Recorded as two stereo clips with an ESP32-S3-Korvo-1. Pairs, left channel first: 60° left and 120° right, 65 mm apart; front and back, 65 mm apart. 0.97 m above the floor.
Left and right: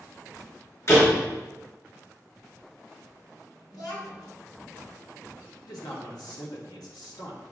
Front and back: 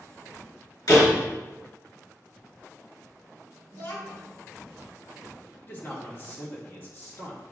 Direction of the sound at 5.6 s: 55° left.